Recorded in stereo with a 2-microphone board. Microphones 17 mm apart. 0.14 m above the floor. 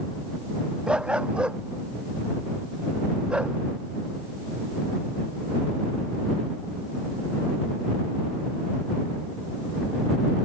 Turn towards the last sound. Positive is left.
turn(degrees=-70)  # may be behind; listen again after turning